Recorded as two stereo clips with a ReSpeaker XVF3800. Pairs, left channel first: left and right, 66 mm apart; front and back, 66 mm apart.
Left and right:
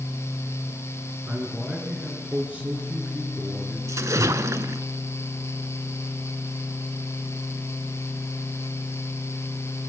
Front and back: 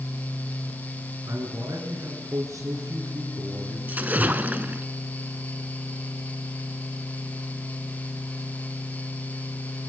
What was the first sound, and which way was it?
A man speaking, 160° right.